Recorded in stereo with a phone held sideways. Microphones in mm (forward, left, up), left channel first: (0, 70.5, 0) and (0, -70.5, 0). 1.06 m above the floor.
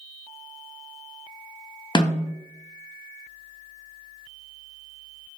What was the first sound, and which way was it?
A snare drum, 30° left (ahead or behind).